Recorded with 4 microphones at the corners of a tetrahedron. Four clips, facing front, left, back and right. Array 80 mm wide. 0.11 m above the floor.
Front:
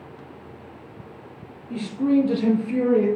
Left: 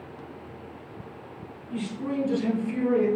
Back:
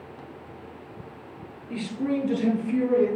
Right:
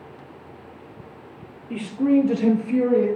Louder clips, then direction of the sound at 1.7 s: Right 11 dB, front 7 dB; 95° right.